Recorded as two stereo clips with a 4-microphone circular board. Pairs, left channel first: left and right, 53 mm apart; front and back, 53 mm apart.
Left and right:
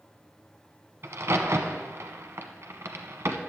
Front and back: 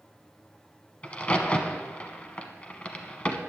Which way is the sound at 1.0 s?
60° right.